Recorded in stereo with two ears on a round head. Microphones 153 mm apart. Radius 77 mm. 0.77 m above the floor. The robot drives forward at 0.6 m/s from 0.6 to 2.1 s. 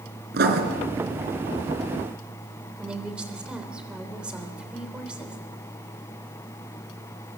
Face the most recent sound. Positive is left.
turn(degrees=-5)  # may be behind; listen again after turning